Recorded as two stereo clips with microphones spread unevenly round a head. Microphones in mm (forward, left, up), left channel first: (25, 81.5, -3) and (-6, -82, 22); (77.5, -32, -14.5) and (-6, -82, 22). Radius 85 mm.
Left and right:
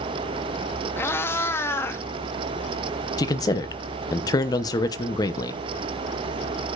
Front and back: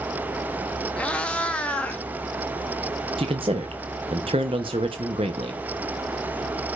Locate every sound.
1.0 s a cat meowing: 160° left, 0.7 m
3.2 s a man speaking: 150° left, 0.7 m